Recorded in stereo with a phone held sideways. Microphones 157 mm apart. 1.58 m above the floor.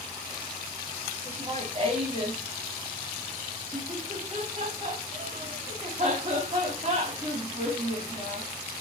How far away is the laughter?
About 3 m.